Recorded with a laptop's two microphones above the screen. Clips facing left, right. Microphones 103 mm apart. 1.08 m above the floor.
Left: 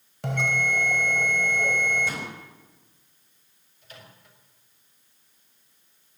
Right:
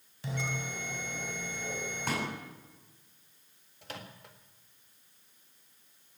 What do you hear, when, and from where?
0.2 s a bell: 70° left (ahead or behind), 1.8 m
2.1 s a pop: 50° right (ahead or behind), 9.5 m
3.8 s a microwave: 75° right (ahead or behind), 1.7 m